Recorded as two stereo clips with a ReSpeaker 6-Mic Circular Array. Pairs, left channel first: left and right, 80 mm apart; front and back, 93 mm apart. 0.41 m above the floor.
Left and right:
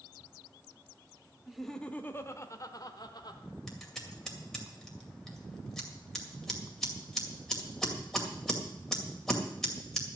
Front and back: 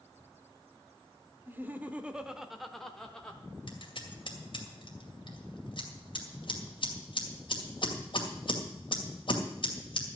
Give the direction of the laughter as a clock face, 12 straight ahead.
6 o'clock.